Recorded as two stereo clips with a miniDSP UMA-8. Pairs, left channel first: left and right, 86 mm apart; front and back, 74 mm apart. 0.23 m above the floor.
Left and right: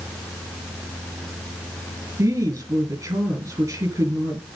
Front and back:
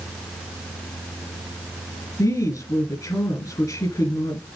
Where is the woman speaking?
40° right, 3 m.